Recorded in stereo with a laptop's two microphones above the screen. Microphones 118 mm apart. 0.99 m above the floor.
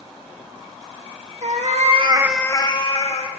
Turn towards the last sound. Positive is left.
turn(degrees=60)  # may be behind; listen again after turning